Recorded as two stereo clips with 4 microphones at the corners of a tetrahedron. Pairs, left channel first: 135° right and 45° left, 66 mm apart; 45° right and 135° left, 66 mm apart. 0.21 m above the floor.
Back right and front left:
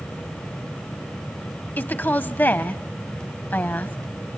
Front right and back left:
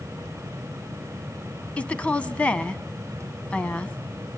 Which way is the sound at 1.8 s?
100° right.